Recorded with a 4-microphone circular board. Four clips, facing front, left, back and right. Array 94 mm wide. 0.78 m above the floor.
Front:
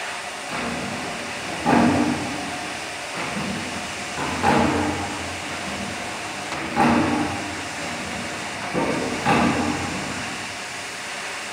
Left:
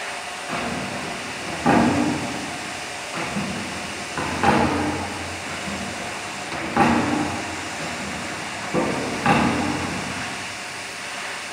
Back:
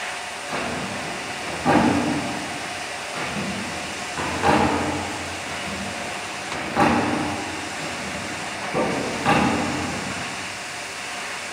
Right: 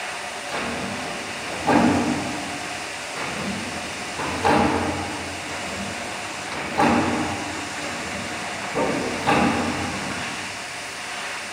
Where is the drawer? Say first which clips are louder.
Left 1 dB, even; 95° left, 2.5 m.